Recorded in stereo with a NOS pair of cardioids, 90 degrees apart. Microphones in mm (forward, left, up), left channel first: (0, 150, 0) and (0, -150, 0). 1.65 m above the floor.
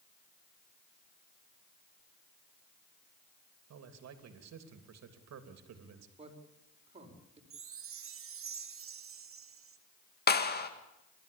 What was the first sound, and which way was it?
A man speaking, 65° right.